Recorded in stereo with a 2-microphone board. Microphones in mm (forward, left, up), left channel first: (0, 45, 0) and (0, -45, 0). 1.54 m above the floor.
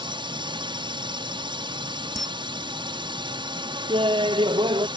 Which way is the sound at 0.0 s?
65° right (ahead or behind).